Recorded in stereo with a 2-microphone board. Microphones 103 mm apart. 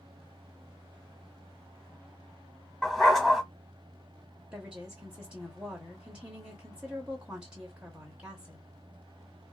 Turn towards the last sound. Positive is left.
turn(degrees=-10)  # may be behind; listen again after turning